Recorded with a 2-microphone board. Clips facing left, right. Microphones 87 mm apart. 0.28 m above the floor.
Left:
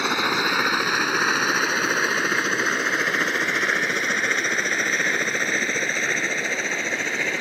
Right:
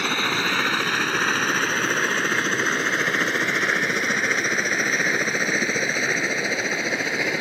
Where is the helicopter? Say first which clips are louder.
Left 2 dB; 15° left (ahead or behind); by 7.4 s 10° right (ahead or behind).